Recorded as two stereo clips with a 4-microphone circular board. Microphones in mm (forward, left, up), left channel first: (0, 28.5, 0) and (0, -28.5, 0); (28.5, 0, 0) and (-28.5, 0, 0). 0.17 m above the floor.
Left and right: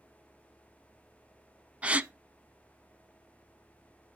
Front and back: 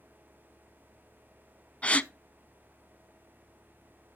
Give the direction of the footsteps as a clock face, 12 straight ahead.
No footsteps in this recording.